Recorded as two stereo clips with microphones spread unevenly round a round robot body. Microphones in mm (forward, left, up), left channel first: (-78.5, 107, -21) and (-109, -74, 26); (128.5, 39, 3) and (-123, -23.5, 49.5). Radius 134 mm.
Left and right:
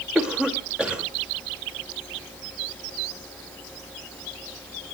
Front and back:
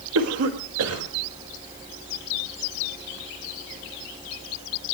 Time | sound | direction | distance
0.1 | a cough | 165° left | 1.7 m